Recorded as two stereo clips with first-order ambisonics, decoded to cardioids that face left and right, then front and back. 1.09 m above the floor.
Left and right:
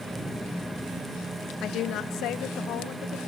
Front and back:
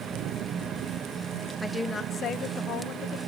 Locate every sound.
1.6 s a woman speaking: 85° left, 0.7 m; by 3.2 s 45° left, 1.3 m